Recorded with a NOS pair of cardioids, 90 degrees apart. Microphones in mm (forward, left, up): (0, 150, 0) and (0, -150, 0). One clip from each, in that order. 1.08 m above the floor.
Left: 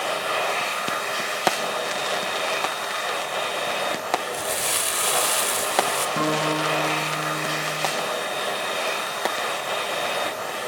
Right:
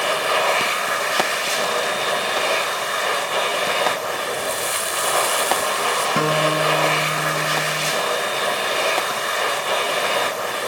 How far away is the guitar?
About 8 m.